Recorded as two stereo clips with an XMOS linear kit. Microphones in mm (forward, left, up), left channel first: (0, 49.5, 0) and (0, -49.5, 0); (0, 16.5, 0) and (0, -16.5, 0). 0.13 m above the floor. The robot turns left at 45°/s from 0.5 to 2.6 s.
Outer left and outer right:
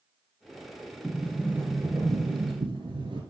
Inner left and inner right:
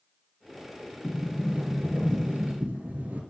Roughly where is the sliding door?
Ahead.